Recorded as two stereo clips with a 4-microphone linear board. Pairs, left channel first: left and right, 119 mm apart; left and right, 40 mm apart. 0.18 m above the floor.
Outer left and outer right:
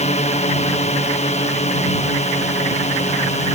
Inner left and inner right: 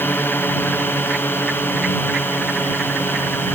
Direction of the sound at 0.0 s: 65° left (ahead or behind).